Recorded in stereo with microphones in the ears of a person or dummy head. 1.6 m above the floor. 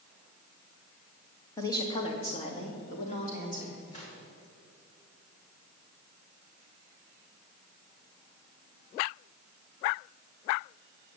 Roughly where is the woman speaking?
Centre.